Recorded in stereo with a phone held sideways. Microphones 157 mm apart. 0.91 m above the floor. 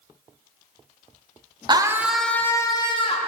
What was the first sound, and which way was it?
A scream, 30° right (ahead or behind).